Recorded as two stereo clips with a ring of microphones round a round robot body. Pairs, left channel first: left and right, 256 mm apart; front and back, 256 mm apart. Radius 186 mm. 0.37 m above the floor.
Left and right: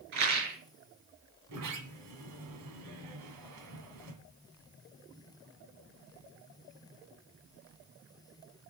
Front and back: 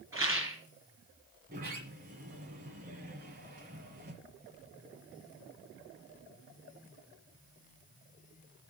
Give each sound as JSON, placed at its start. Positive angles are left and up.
{"t": 0.1, "sound": "a rattle", "azimuth_deg": -95, "distance_m": 4.0}
{"t": 1.5, "sound": "a sliding door", "azimuth_deg": -115, "distance_m": 1.7}